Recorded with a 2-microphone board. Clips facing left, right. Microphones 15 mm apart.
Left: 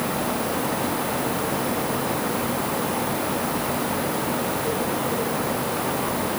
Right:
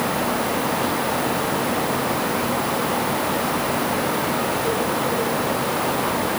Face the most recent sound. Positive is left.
No sound to turn to.